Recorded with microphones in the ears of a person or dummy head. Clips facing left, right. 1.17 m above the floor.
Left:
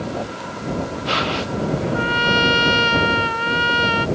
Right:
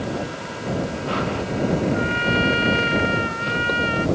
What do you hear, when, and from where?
1.9 s a trumpet: 65° left (ahead or behind)